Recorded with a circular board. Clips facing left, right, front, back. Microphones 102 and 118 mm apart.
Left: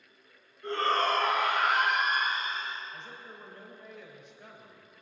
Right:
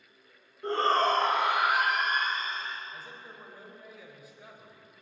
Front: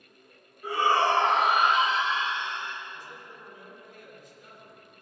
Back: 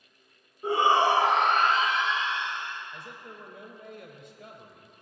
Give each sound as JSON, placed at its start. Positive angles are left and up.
{"t": 0.6, "sound": "a shout", "azimuth_deg": -130, "distance_m": 1.8}
{"t": 2.9, "sound": "a man speaking", "azimuth_deg": -175, "distance_m": 3.0}